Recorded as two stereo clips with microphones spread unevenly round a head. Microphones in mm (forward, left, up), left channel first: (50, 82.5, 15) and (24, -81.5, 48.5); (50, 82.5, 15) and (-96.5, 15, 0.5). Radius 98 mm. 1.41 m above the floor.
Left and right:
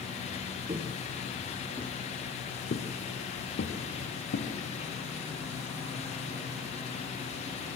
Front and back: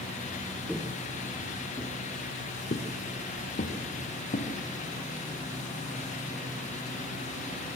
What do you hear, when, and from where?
0.7 s footsteps: 65° right, 2.0 m; by 4.5 s 60° left, 3.5 m